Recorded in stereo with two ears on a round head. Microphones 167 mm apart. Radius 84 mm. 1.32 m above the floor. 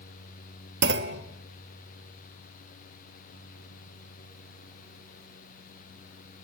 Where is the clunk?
65° right (ahead or behind), 1.3 m.